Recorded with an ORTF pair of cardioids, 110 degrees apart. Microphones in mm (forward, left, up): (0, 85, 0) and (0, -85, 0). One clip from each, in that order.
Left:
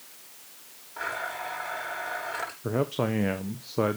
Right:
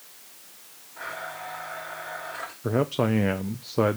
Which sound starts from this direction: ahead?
A man speaking, at 2.6 s.